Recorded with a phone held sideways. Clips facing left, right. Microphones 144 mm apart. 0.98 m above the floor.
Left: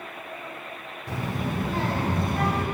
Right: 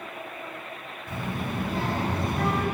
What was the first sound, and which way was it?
A child speaking, 80° left.